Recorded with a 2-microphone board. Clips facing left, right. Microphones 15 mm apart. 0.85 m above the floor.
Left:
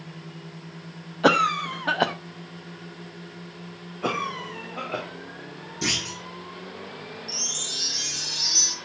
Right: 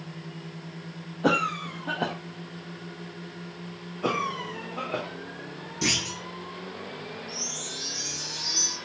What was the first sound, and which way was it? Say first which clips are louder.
A cough: left 5 dB; 65° left (ahead or behind).